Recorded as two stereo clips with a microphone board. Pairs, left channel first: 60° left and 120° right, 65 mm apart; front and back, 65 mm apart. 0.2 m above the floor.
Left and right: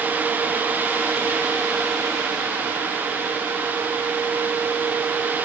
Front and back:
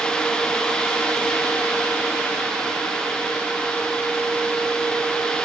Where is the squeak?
I don't hear a squeak.